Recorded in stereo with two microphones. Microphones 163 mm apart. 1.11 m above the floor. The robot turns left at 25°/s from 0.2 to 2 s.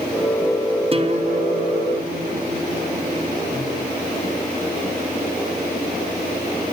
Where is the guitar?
35° right (ahead or behind), 2.0 m; by 3.7 s 65° right (ahead or behind), 2.0 m.